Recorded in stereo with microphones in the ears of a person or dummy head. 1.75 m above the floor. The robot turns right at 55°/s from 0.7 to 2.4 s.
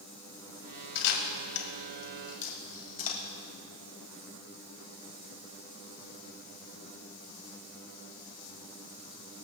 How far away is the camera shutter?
About 2.5 m.